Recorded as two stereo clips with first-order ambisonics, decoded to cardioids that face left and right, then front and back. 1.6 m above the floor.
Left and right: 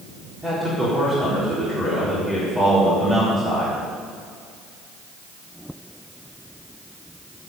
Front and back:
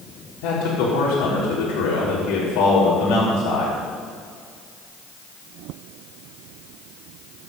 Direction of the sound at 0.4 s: 10° right.